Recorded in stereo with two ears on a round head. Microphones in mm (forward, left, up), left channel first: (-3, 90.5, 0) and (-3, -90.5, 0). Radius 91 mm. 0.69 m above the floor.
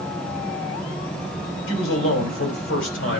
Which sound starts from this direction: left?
A man speaking, at 1.7 s.